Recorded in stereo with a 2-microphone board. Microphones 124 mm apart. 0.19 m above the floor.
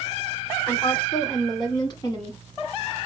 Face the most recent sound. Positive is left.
turn(degrees=30)  # may be behind; listen again after turning